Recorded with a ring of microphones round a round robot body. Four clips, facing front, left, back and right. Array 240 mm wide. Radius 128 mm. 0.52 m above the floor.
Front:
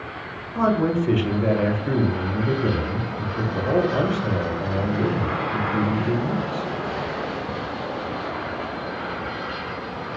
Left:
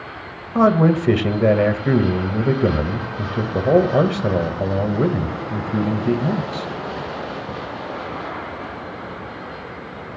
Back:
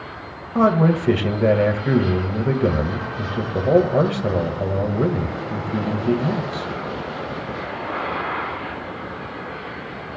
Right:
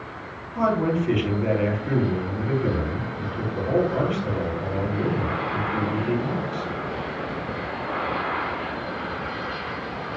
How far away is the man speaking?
About 2 m.